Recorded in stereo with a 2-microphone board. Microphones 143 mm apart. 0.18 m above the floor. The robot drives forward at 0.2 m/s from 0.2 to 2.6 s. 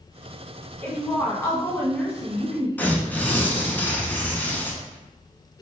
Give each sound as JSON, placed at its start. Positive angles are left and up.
{"t": 0.8, "sound": "a woman speaking", "side_deg": 20, "distance_m": 1.5}
{"t": 2.8, "sound": "tearing paper", "side_deg": 10, "distance_m": 0.7}